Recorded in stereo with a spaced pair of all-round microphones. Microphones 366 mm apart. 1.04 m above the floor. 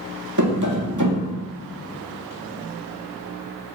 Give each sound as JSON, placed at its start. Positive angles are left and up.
{"t": 0.4, "sound": "tapping", "side_deg": -55, "distance_m": 1.9}